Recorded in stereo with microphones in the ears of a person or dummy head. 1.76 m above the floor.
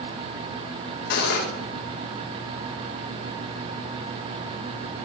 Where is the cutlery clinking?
55° left (ahead or behind), 2.5 m.